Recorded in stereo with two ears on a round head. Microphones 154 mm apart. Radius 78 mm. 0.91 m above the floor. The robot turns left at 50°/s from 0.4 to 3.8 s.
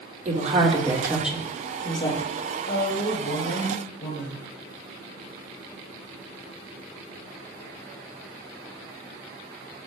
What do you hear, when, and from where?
0.2 s a woman speaking: 130° right, 2.5 m; by 2.2 s 135° left, 2.5 m
2.7 s a woman speaking: 140° left, 4 m; by 4.5 s 85° left, 4 m